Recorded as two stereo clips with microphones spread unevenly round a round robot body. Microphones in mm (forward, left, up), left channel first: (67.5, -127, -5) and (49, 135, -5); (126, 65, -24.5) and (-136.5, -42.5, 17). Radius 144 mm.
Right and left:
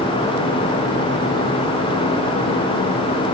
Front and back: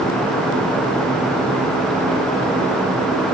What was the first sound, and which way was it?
Only background noise.